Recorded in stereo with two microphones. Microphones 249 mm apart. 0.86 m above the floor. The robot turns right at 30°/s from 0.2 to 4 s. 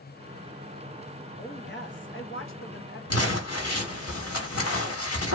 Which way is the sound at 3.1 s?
75° left (ahead or behind).